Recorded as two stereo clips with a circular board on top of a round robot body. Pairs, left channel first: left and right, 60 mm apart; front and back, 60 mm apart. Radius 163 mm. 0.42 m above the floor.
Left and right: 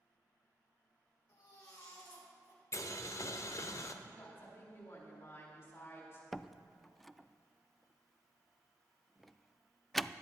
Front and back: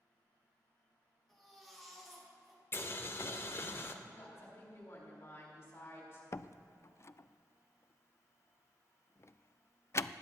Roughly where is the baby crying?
Left.